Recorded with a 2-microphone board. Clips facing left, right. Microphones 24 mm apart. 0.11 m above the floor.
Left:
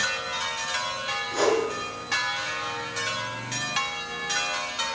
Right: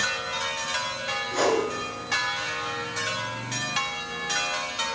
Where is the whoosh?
10° right (ahead or behind), 1.1 m.